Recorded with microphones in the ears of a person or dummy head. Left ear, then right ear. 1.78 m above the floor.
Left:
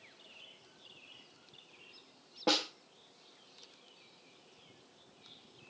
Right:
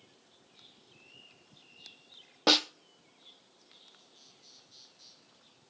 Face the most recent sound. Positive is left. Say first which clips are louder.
# right 6 dB
turn(degrees=-50)  # may be behind; listen again after turning